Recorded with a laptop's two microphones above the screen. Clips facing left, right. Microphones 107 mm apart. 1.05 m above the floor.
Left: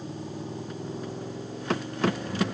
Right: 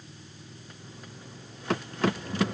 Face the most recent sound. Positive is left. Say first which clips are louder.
# left 14 dB
turn(degrees=70)  # may be behind; listen again after turning